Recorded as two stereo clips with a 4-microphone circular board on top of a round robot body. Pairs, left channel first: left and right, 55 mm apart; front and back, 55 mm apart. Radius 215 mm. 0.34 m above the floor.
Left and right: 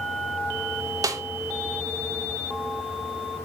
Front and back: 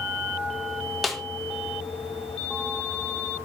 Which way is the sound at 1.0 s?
90° right.